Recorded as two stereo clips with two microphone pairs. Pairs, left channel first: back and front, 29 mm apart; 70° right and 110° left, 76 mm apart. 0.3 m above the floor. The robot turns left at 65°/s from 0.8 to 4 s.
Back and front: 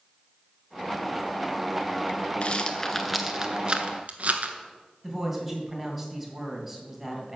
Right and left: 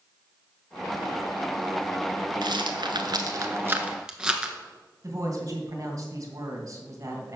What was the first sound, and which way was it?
A rattle, 130° left.